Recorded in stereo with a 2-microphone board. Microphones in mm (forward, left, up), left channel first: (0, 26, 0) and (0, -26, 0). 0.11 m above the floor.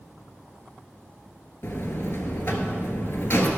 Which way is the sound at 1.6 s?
45° left (ahead or behind).